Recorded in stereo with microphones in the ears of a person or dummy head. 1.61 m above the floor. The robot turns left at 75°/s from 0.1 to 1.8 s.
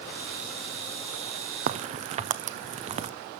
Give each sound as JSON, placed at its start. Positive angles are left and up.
{"t": 1.7, "sound": "a crack", "side_deg": -50, "distance_m": 0.6}